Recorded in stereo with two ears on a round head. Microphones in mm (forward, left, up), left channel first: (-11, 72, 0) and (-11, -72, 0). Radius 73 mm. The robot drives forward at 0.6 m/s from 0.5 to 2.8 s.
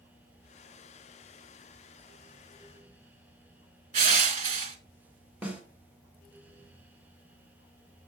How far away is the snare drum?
About 1.9 m.